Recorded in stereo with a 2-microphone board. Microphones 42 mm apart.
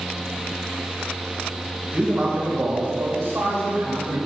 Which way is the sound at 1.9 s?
10° right (ahead or behind).